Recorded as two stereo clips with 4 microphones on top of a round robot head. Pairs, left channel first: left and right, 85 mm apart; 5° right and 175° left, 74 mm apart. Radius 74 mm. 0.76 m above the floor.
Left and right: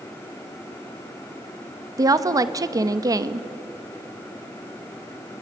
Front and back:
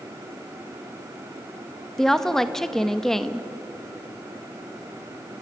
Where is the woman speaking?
90° right, 1.1 m.